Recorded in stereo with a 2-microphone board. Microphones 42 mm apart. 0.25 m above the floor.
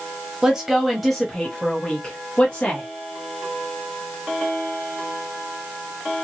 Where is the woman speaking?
15° right (ahead or behind), 1.0 m; by 2.9 s 40° left (ahead or behind), 1.5 m.